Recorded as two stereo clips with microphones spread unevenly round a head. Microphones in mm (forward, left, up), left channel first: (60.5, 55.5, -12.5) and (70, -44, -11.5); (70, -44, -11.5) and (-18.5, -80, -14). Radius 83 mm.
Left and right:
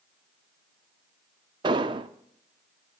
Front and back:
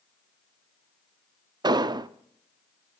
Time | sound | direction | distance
1.6 | an explosion | 120° right | 0.5 m